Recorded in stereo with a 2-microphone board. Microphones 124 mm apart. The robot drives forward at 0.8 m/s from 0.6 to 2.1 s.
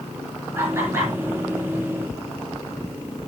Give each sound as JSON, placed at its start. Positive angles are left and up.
{"t": 0.6, "sound": "laughter", "side_deg": -25, "distance_m": 3.5}